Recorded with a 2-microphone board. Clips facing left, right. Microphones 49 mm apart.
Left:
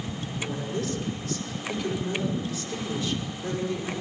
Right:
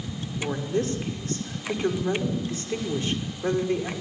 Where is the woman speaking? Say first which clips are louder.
Right 5 dB; 40° right (ahead or behind), 5.5 m.